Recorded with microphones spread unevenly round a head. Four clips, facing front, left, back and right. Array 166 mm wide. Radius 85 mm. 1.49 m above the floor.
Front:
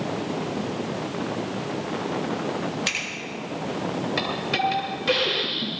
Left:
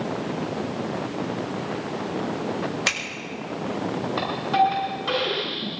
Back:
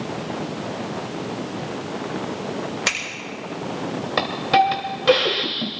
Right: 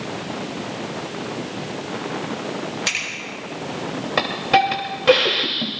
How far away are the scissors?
About 7 m.